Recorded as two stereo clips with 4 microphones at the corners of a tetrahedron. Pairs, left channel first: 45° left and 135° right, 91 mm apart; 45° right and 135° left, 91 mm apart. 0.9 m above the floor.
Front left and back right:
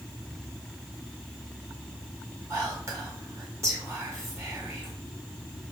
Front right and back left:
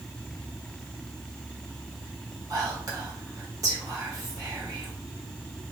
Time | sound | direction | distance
2.5 | whispering | 175° left | 1.3 m